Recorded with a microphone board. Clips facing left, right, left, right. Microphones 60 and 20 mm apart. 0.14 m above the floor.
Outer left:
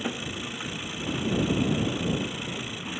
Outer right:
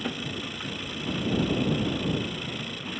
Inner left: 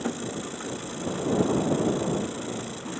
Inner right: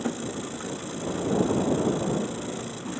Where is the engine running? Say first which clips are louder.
Even, even; 5° left (ahead or behind).